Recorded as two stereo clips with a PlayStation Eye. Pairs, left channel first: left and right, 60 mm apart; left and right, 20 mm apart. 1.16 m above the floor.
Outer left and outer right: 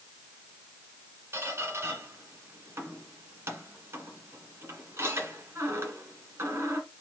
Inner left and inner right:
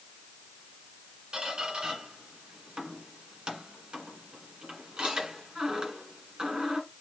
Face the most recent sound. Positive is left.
turn(degrees=-45)  # may be behind; listen again after turning